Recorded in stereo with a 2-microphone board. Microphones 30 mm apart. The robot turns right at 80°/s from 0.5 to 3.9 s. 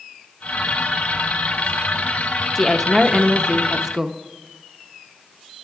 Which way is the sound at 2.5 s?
5° left (ahead or behind).